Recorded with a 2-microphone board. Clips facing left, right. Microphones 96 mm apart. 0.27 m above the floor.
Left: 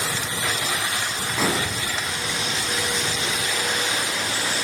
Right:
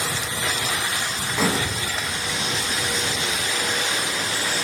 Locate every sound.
1.4 s dishes clattering: centre (ahead or behind), 1.4 m